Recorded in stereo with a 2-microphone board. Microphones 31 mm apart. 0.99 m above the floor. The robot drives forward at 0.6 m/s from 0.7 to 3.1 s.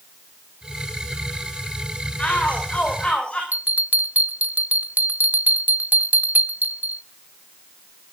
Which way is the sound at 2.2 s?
40° left (ahead or behind).